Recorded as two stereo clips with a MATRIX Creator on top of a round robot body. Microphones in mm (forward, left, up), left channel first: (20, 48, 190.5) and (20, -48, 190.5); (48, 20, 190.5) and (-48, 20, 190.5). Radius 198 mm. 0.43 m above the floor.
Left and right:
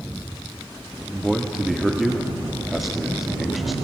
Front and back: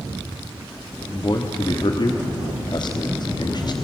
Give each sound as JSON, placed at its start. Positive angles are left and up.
{"t": 1.0, "sound": "a man speaking", "azimuth_deg": 0, "distance_m": 1.5}